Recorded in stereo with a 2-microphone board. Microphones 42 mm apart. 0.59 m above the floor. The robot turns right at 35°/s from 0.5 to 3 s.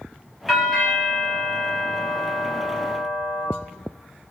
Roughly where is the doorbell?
Behind.